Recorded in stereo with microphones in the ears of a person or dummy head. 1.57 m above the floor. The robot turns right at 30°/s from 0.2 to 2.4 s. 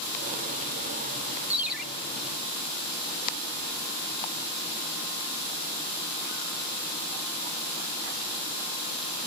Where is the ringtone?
10° right (ahead or behind), 1.0 m; by 1.8 s centre (ahead or behind), 1.0 m.